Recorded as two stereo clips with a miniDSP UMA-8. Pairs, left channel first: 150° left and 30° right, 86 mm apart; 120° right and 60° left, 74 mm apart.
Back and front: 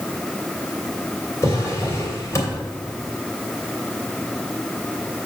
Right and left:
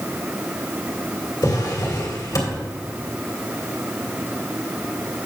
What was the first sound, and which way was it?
A drawer, 155° right.